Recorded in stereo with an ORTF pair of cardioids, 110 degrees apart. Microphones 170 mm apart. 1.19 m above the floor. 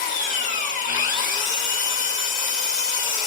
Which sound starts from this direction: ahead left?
An engine running, at 0.0 s.